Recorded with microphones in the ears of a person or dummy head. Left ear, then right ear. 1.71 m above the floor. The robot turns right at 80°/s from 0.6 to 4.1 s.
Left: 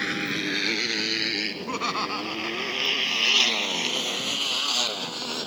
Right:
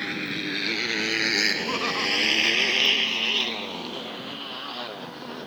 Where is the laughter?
15° right; by 3.6 s 150° left.